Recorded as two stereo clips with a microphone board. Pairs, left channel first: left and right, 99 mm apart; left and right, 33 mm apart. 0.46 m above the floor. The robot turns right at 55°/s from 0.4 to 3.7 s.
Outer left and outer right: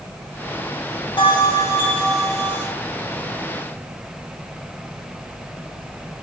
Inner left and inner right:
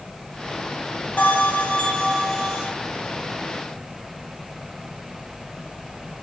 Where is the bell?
120° left, 4.5 m; by 2.7 s 155° right, 4.5 m.